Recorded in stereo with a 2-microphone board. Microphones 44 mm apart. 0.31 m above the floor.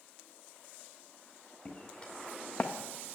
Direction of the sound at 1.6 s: 15° left (ahead or behind).